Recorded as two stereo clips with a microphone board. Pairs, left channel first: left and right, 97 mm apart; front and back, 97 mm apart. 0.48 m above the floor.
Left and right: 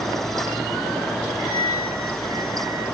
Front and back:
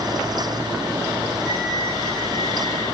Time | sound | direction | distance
1.4 | a flute | 80° right | 7.5 m